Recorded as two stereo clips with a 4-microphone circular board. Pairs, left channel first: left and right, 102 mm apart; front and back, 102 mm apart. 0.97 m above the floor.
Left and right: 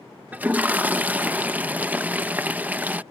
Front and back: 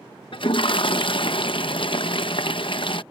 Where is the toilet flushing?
20° right.